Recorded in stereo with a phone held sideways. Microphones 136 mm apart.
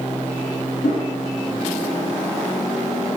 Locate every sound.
0.8 s a whoosh: 60° left (ahead or behind), 0.7 m